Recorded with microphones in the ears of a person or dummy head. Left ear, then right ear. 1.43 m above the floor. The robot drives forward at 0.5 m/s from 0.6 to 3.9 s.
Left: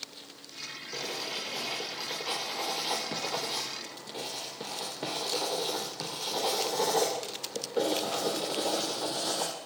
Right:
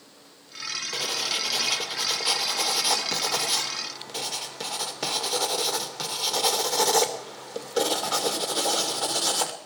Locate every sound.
0.9 s writing: 60° right (ahead or behind), 3 m; by 9.5 s 75° right (ahead or behind), 2.5 m